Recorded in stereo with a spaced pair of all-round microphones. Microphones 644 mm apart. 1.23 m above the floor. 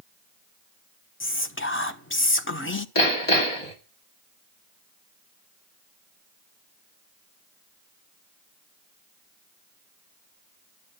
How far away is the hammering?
About 2.5 m.